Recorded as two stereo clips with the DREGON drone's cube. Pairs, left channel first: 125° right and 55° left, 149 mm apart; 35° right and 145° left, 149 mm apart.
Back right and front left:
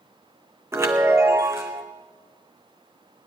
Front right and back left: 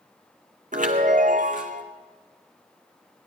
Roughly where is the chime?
Behind left.